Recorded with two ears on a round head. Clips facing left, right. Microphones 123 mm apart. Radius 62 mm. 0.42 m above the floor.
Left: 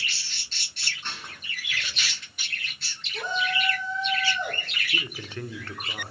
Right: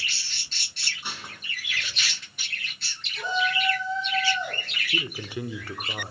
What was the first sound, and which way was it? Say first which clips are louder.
Dishes clattering: right 2 dB; 10° right (ahead or behind).